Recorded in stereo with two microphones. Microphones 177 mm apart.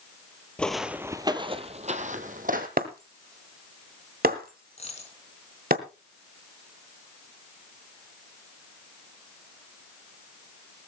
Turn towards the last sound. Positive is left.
turn(degrees=35)  # may be behind; listen again after turning